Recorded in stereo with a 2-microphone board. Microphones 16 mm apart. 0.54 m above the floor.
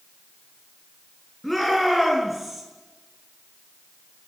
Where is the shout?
5° left (ahead or behind), 6.5 m; by 2.6 s centre (ahead or behind), 6 m.